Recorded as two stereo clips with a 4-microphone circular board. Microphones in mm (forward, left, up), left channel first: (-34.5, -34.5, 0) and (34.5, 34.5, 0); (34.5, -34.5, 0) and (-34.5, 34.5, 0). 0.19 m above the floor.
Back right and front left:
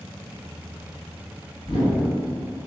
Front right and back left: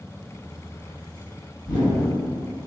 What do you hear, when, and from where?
1.6 s a whoosh: 105° right, 1.9 m